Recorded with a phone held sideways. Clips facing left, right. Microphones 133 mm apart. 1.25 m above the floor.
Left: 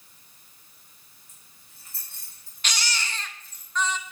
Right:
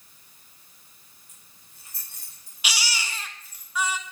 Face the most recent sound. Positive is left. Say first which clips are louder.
# even
turn(degrees=-10)  # may be behind; listen again after turning